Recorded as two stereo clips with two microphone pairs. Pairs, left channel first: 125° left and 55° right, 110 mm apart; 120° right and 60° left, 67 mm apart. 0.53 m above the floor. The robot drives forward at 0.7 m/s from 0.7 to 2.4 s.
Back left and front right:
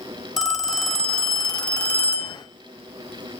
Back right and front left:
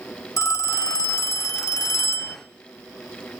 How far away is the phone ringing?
About 2 m.